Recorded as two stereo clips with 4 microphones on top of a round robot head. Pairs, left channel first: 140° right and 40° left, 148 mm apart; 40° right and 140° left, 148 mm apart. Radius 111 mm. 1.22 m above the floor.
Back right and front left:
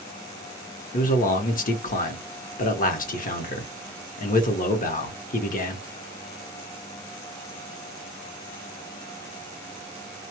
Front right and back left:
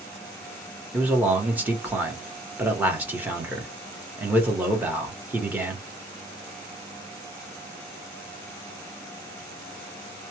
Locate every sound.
0.9 s a man speaking: 145° right, 1.0 m